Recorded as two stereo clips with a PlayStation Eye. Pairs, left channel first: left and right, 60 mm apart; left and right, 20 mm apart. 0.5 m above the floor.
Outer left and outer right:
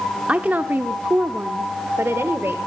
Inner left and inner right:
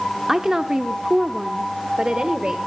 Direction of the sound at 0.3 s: 20° right (ahead or behind).